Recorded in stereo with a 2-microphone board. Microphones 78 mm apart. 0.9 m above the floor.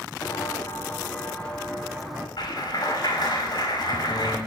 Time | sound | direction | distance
0.2 | footsteps | 45° left (ahead or behind) | 1.7 m
2.4 | a clap | 60° left (ahead or behind) | 5 m